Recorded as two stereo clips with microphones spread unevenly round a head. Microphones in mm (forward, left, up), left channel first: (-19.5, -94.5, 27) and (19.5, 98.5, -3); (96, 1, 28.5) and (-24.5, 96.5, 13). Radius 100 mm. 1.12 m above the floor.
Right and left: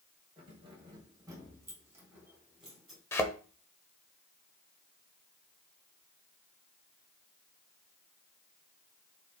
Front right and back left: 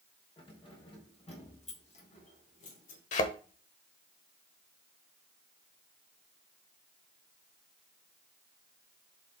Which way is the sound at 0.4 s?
15° left.